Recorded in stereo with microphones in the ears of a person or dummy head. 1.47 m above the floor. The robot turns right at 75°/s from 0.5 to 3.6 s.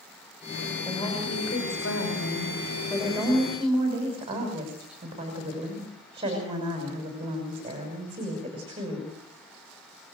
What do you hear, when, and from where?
0.8 s a woman speaking: 10° left, 6 m; by 9.1 s 145° right, 6 m